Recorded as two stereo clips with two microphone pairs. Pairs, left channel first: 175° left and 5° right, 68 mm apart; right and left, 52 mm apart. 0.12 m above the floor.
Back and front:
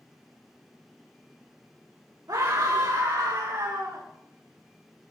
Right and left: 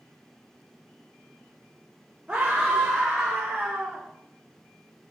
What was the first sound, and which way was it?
A scream, 10° left.